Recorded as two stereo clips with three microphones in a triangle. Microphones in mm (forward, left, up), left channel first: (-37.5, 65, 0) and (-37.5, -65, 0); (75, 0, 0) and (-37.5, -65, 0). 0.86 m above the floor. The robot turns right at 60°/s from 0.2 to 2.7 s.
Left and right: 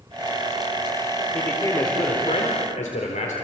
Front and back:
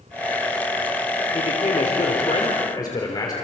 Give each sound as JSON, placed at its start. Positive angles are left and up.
{"t": 1.3, "sound": "a man speaking", "azimuth_deg": 5, "distance_m": 3.0}